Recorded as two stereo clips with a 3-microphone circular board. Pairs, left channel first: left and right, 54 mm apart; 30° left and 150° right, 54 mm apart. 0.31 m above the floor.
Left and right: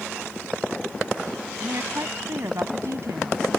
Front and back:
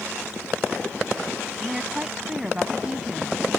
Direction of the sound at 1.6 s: 75° right.